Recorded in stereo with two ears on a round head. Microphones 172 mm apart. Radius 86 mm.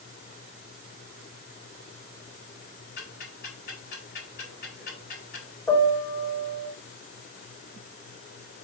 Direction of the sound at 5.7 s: 15° left (ahead or behind).